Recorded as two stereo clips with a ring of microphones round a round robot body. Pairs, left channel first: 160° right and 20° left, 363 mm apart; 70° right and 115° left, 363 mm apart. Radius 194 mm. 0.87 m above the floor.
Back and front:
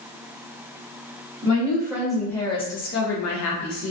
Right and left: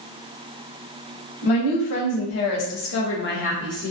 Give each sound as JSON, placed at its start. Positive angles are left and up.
{"t": 1.4, "sound": "a woman speaking", "azimuth_deg": -55, "distance_m": 1.1}